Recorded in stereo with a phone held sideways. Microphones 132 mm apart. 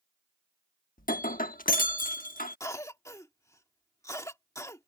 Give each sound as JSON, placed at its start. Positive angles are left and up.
{"t": 1.0, "sound": "breaking glass", "side_deg": 80}
{"t": 2.6, "sound": "a cough", "side_deg": 20}